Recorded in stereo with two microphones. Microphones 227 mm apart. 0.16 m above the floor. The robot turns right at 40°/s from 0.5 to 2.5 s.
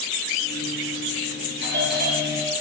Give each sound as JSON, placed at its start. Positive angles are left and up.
{"t": 1.6, "sound": "a doorbell", "azimuth_deg": -70, "distance_m": 4.0}